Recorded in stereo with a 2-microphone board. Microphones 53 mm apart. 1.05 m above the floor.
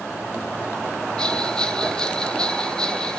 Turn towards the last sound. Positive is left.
turn(degrees=15)  # may be behind; listen again after turning